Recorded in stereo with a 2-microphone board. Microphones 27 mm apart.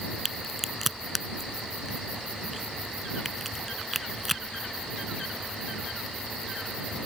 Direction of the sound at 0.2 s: Centre (ahead or behind).